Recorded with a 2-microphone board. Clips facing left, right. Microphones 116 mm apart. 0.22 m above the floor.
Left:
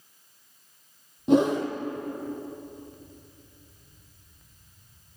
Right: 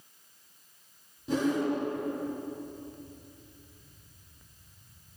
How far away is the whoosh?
About 3 m.